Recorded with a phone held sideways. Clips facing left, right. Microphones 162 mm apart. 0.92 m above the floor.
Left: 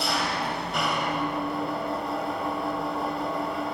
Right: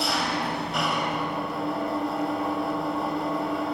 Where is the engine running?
Centre (ahead or behind), 4 m.